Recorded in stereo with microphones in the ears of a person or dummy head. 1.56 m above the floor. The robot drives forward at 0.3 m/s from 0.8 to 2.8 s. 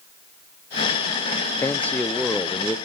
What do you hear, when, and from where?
1.6 s a man speaking: 10° left (ahead or behind), 0.5 m; by 2.8 s 5° left (ahead or behind), 0.9 m